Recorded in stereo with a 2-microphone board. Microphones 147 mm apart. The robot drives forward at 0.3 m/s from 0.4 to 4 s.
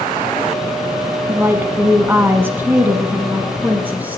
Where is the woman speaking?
15° right (ahead or behind), 1.0 m; by 4.2 s 10° right (ahead or behind), 1.4 m.